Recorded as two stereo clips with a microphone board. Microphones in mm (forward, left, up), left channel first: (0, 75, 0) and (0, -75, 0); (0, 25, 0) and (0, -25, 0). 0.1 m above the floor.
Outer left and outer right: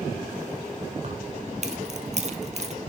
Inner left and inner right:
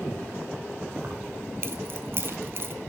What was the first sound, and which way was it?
Keys jangling, 50° right (ahead or behind).